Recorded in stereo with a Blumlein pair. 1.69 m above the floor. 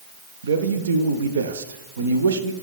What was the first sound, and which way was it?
A man speaking, 65° right.